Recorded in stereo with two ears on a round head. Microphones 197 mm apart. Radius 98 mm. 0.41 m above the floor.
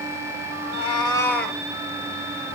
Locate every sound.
0.6 s a cat meowing: 35° left (ahead or behind), 1.1 m; by 1.6 s centre (ahead or behind), 0.8 m